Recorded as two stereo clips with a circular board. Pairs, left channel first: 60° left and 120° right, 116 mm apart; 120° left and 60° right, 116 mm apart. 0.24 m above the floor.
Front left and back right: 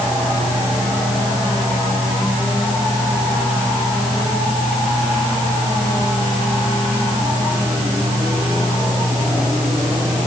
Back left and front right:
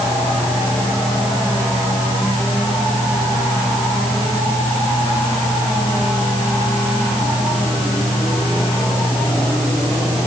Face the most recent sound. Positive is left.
No sound to turn to.